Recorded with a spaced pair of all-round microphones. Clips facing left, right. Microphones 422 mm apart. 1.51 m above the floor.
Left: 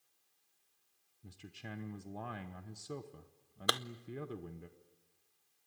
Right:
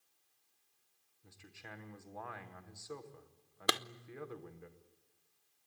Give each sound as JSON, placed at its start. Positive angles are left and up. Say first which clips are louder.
{"t": 1.2, "sound": "a man speaking", "louder": "left 6 dB", "side_deg": 45, "distance_m": 1.0}
{"t": 3.7, "sound": "a clap", "louder": "right 1 dB", "side_deg": -45, "distance_m": 0.5}